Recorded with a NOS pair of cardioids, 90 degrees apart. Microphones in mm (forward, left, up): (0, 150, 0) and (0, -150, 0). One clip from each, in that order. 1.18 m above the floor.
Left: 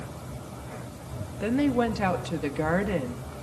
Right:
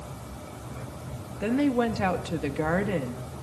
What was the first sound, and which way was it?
A woman speaking, straight ahead.